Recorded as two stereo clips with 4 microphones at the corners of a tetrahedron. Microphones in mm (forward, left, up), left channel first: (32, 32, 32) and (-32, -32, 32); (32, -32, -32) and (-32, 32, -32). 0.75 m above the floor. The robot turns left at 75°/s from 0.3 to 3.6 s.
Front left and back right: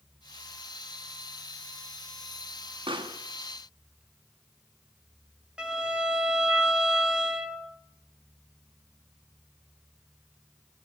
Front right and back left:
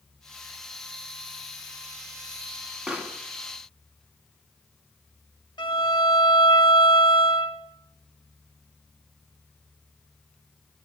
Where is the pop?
145° right, 1.5 m; by 3.2 s 170° right, 1.5 m.